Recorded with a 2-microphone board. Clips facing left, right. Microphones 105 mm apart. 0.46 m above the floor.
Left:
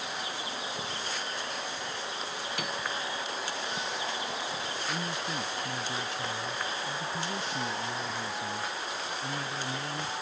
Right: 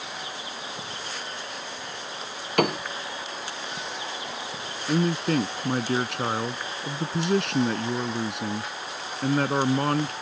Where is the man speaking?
70° right (ahead or behind).